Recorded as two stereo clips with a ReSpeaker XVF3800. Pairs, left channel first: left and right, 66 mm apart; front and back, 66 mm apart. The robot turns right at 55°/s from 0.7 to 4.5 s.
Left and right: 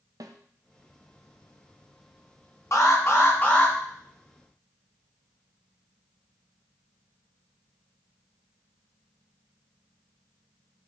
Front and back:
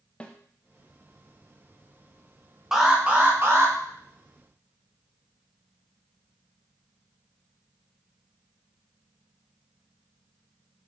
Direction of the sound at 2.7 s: 100° left.